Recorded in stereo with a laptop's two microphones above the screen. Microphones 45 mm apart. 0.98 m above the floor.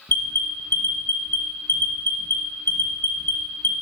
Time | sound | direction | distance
0.1 | an alarm | 55° left (ahead or behind) | 1.1 m